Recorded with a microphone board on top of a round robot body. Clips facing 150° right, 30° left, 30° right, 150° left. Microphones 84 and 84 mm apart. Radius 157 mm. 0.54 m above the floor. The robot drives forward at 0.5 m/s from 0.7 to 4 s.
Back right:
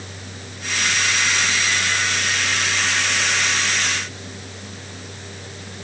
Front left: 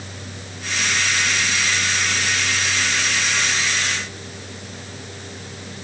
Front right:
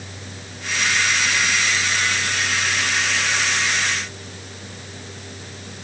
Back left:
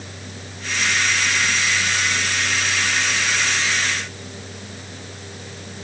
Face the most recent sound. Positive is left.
No sound to turn to.